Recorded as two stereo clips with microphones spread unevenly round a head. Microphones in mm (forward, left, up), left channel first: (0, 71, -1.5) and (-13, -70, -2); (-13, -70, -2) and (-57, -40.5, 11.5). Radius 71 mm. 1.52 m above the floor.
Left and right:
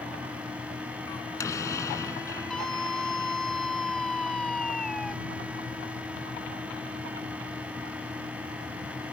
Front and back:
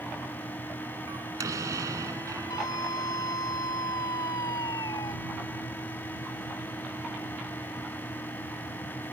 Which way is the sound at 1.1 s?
155° left.